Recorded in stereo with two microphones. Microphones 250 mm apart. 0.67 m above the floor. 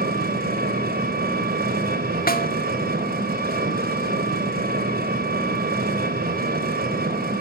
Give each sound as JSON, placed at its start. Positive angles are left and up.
{"t": 0.0, "sound": "an engine running", "side_deg": -35, "distance_m": 3.0}
{"t": 2.3, "sound": "a snare drum", "side_deg": 35, "distance_m": 1.7}